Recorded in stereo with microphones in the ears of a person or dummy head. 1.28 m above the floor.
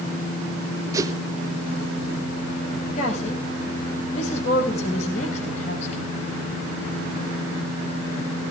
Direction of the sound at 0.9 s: 20° right (ahead or behind).